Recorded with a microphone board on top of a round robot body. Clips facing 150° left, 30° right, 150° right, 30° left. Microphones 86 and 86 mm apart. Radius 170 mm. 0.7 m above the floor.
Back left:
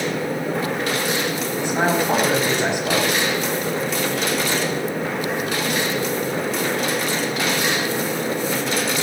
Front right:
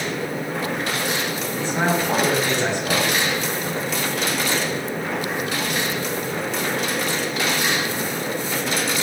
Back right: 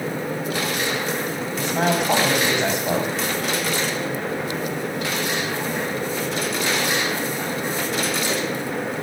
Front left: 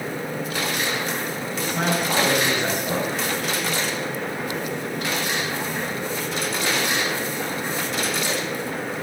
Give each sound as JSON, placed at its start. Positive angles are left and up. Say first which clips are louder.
{"t": 1.6, "sound": "a man speaking", "louder": "back left 2 dB, back right 3 dB", "azimuth_deg": -135, "distance_m": 6.0}